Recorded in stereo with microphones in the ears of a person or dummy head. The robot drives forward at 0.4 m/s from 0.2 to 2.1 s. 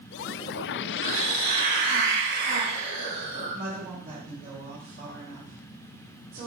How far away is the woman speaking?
About 2 m.